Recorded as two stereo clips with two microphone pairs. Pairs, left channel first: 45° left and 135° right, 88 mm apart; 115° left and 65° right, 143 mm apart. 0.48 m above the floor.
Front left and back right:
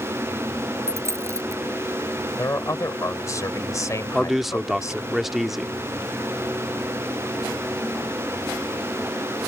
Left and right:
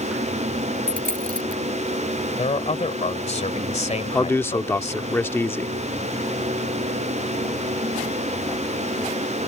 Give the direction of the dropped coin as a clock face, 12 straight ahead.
3 o'clock.